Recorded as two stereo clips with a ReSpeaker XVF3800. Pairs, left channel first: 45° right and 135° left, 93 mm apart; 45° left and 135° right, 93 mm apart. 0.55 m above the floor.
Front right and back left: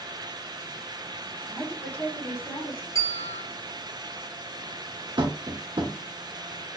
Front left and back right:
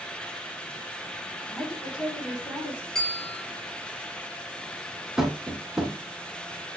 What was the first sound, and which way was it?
A woman speaking, 20° left.